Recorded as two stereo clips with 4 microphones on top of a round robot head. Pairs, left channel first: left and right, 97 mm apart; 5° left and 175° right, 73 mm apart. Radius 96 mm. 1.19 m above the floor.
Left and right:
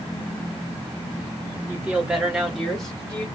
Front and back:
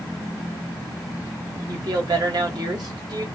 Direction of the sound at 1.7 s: 160° right.